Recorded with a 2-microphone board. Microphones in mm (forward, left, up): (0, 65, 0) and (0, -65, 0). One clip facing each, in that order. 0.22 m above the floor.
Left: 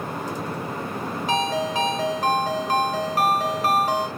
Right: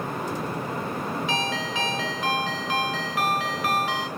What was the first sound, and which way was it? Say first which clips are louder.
A ringtone: left 5 dB; 45° left (ahead or behind).